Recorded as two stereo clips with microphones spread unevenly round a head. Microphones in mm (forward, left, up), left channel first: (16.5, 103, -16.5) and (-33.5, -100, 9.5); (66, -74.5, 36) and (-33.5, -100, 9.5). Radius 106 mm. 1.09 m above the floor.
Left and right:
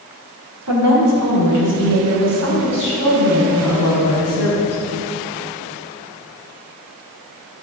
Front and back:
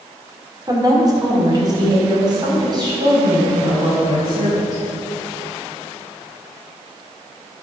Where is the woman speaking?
110° right, 2.5 m; by 4.8 s 120° right, 8.5 m.